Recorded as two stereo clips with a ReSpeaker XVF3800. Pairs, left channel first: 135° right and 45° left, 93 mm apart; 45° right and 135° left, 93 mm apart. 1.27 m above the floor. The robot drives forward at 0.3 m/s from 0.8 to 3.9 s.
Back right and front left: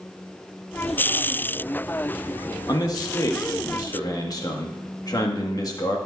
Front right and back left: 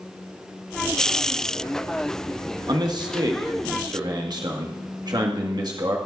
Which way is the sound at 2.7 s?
175° left.